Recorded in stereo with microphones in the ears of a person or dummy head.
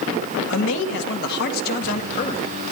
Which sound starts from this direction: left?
A man speaking, at 0.5 s.